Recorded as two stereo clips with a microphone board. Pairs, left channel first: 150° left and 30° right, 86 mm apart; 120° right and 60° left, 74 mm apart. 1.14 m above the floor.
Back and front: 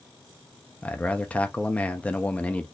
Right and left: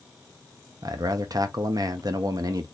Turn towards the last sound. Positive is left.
turn(degrees=80)